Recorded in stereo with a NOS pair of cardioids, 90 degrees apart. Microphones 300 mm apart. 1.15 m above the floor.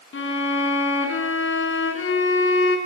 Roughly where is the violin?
Ahead left.